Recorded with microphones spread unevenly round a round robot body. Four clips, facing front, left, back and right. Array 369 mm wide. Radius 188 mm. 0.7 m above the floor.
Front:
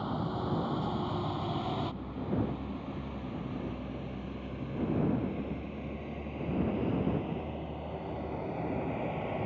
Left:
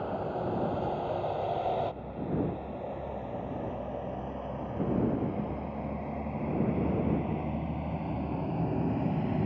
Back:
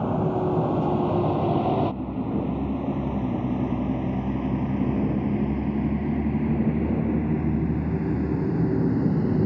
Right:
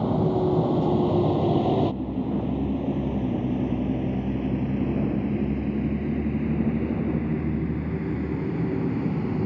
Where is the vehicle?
125° right; by 9.4 s 170° right.